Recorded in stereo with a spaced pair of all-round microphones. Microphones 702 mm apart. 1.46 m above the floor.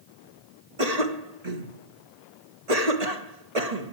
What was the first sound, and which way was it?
A cough, 60° right (ahead or behind).